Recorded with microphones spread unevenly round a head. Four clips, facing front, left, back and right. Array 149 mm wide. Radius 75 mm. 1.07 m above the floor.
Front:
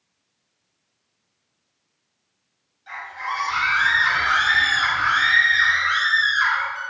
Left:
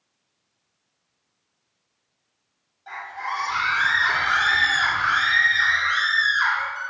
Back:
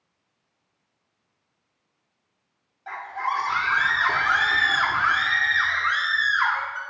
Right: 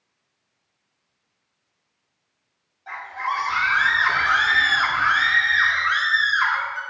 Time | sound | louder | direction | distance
2.9 | a scream | right 3 dB, back 2 dB | 170° right | 3 m